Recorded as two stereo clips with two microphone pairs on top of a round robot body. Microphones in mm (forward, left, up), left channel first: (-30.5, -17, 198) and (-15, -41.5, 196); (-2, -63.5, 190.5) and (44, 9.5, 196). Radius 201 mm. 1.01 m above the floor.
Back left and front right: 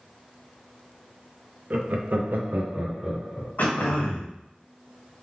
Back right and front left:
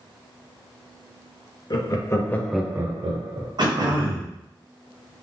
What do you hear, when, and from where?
1.7 s laughter: 80° right, 1.4 m; by 3.5 s 40° left, 1.2 m
3.6 s throat clearing: 95° left, 1.2 m